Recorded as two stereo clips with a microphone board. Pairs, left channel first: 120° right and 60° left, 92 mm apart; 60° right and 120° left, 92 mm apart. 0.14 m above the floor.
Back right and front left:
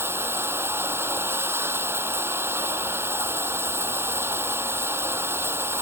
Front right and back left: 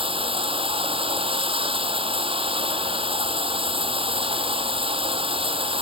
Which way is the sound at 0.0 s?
125° left.